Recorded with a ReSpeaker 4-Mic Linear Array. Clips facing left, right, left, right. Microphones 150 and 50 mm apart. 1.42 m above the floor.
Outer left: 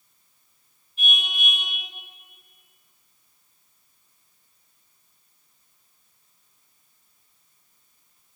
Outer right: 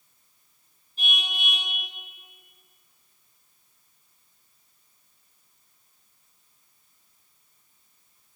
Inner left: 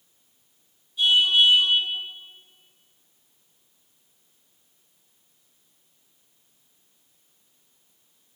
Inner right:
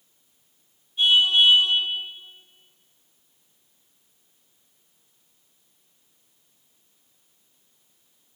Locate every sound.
1.0 s a car horn: 35° right (ahead or behind), 9 m